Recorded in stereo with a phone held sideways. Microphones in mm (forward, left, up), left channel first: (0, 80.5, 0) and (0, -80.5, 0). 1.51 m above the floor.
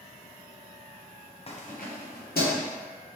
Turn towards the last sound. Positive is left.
turn(degrees=75)  # may be behind; listen again after turning